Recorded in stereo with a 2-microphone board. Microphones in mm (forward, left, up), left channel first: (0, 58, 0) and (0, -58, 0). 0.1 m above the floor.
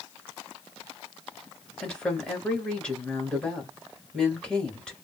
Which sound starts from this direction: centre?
A woman speaking, at 1.8 s.